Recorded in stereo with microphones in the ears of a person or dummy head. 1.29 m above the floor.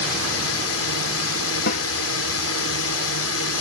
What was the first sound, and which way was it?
A drone, 75° left (ahead or behind).